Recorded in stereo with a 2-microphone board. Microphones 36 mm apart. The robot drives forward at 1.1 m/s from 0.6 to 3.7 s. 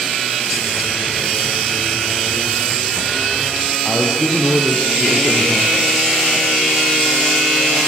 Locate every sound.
3.9 s a man speaking: 35° left (ahead or behind), 4 m